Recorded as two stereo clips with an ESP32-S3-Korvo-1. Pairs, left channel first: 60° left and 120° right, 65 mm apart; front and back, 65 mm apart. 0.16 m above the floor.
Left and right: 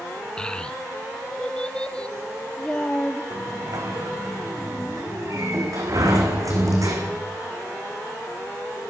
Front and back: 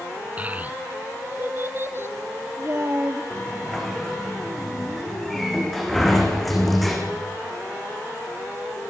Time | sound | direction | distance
0.4 | a child speaking | 130° left | 1.3 m
3.3 | a sliding door | 90° right | 6 m